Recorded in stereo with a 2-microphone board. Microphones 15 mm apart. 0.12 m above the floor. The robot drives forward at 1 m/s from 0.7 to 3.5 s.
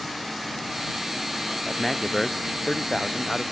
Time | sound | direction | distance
1.7 | a man speaking | 10° left (ahead or behind) | ?